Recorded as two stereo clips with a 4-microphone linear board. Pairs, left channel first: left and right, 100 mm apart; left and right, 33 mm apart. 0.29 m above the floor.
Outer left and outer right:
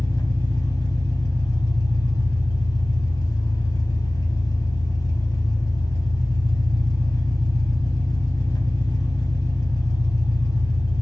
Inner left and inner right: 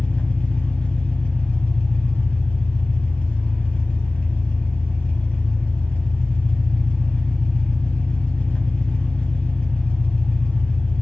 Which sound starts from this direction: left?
An engine running, at 0.0 s.